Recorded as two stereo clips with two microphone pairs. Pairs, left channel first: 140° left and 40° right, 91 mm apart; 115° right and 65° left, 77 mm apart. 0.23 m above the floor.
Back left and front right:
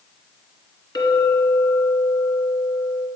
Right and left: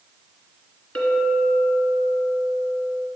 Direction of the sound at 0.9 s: Straight behind.